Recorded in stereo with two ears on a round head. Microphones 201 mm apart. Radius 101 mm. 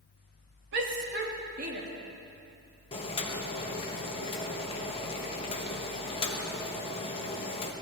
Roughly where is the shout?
Right.